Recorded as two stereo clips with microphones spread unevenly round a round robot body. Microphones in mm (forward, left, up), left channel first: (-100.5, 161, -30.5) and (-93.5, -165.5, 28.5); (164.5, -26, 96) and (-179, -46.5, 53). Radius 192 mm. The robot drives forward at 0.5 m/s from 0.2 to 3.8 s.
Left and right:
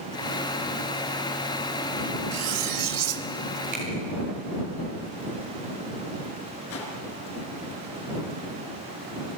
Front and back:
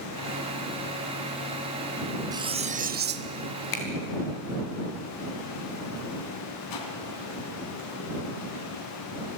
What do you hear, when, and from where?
2.3 s cutlery clinking: 100° right, 1.2 m; by 3.3 s 125° right, 1.3 m
3.7 s a finger snap: 15° right, 4.5 m
6.7 s a whoosh: 35° left, 3 m